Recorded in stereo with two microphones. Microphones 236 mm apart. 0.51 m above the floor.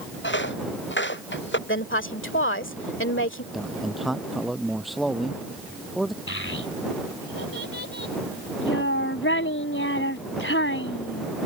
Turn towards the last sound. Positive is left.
turn(degrees=65)  # may be behind; listen again after turning